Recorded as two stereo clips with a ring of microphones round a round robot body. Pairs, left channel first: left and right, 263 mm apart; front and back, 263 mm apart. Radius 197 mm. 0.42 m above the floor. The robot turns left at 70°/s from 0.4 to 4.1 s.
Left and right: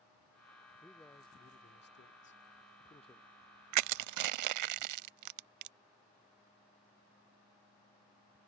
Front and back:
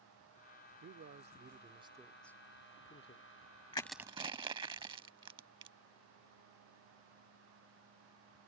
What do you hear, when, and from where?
0.8 s a man speaking: 175° right; by 3.3 s 10° left
3.7 s crushing: 75° right; by 5.8 s 105° right